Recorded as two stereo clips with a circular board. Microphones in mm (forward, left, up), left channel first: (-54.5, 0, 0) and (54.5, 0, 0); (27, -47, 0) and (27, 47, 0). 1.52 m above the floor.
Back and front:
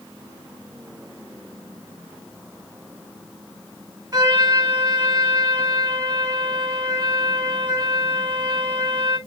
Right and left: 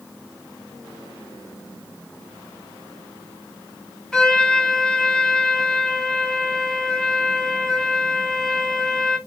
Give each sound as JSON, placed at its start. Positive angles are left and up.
{"t": 4.1, "sound": "a trumpet", "azimuth_deg": -10, "distance_m": 1.2}